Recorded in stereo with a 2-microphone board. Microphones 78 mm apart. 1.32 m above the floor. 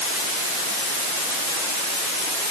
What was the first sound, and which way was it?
Only background noise.